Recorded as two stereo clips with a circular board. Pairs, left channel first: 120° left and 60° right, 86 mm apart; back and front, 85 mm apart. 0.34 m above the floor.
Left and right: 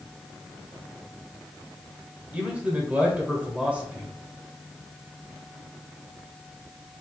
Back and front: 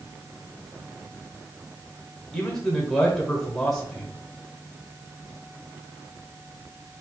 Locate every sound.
2.3 s a man speaking: 105° right, 1.2 m